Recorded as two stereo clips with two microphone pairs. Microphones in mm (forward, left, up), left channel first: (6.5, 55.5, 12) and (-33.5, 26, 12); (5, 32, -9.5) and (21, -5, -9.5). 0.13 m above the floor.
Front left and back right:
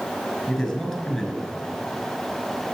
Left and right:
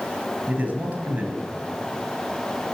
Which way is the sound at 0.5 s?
55° right.